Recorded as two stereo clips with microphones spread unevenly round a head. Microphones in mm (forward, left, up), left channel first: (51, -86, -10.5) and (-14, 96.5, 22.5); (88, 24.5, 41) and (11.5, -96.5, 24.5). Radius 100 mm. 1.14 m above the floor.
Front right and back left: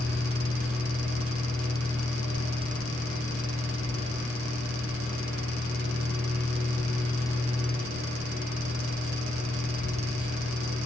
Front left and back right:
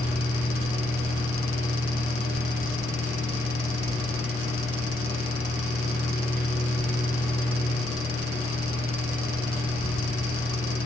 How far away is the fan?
About 1.2 m.